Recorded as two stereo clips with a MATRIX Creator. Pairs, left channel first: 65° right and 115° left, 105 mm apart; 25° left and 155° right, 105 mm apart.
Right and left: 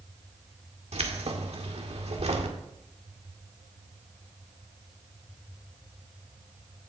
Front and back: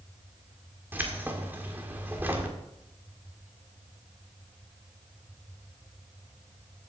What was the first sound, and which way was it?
Keys jangling, 130° left.